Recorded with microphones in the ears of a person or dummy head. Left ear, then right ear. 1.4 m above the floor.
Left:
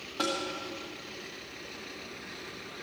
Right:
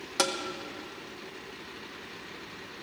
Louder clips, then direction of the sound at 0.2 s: Right 3 dB; 65° right (ahead or behind).